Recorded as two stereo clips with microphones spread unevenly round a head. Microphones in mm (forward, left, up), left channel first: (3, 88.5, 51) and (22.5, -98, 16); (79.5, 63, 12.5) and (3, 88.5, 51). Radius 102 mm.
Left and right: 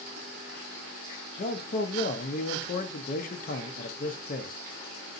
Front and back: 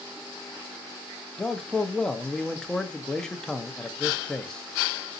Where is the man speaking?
45° left, 0.7 m.